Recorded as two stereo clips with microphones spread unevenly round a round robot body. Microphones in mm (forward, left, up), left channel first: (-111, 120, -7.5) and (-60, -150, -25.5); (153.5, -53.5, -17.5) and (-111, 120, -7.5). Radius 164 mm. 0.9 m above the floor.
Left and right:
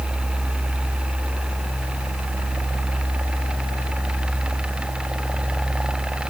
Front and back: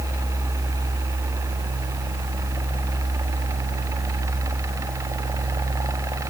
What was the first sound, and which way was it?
Only background noise.